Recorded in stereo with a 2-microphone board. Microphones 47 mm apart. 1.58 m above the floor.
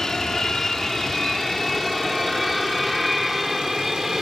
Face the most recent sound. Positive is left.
turn(degrees=-5)  # may be behind; listen again after turning